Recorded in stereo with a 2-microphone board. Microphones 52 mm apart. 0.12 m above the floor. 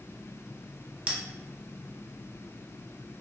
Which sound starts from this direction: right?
A bell, at 1.1 s.